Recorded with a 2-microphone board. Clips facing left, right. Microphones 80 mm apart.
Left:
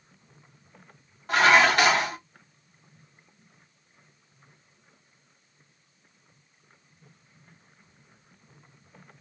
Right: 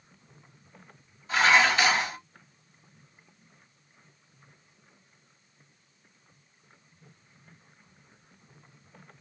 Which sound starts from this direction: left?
Dishes clattering, at 1.3 s.